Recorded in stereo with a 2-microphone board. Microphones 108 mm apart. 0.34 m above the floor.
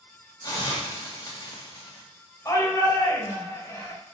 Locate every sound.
0.4 s a hiss: 40° left (ahead or behind), 1.6 m
2.5 s a shout: 30° left (ahead or behind), 1.8 m